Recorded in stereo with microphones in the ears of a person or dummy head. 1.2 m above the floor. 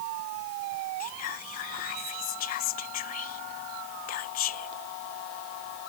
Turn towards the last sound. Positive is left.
turn(degrees=50)  # may be behind; listen again after turning